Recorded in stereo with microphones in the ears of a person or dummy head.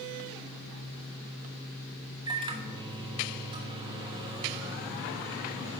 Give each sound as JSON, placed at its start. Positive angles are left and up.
{"t": 2.3, "sound": "a microwave", "side_deg": -30, "distance_m": 1.1}